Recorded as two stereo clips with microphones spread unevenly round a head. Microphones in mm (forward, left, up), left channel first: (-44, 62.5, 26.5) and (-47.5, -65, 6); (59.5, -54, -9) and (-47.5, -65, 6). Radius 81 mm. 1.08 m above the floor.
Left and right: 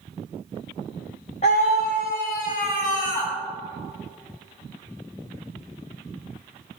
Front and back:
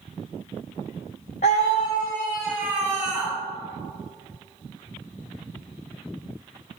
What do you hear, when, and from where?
1.4 s a scream: 35° left, 0.7 m; by 3.3 s 115° left, 1.5 m